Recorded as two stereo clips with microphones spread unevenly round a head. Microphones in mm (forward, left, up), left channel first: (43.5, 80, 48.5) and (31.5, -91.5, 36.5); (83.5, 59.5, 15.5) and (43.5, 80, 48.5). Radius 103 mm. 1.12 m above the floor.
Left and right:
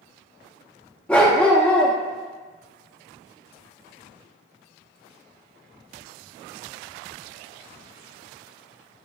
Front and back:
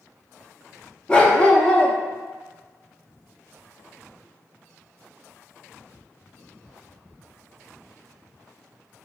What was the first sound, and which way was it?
A dog barking, 150° left.